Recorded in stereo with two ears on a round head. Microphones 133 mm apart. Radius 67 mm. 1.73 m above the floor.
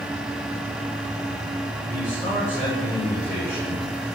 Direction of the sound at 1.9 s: 15° left (ahead or behind).